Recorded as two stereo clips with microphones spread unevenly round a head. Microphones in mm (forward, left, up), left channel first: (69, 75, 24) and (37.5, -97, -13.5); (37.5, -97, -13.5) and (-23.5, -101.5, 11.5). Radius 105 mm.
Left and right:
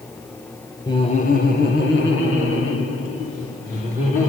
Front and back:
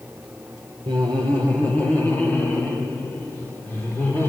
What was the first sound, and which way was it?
Laughter, 155° left.